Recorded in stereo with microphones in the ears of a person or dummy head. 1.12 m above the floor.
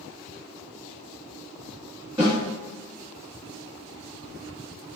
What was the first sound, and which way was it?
A snare drum, 15° right (ahead or behind).